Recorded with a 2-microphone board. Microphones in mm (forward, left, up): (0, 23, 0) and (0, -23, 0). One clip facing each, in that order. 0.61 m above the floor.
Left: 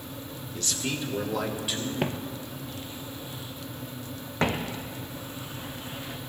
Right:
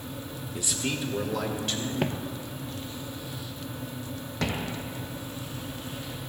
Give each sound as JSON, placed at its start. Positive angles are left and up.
{"t": 0.6, "sound": "a man speaking", "side_deg": -20, "distance_m": 1.4}
{"t": 2.0, "sound": "footsteps", "side_deg": 5, "distance_m": 0.6}